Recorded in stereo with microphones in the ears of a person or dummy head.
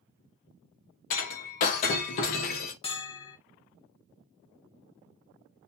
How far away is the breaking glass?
About 0.7 m.